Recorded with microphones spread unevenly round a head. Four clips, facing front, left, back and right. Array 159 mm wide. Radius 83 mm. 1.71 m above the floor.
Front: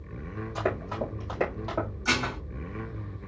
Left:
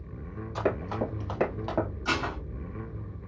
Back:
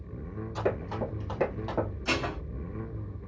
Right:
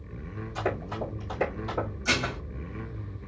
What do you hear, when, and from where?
0.6 s running footsteps: 60° left, 4 m; by 1.9 s 65° left, 3 m
2.0 s dishes clattering: 40° left, 4 m